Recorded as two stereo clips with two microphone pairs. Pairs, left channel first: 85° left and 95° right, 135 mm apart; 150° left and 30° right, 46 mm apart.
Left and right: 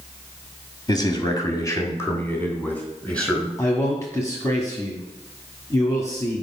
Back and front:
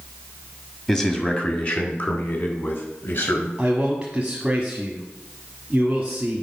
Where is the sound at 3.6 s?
30° left, 1.4 m.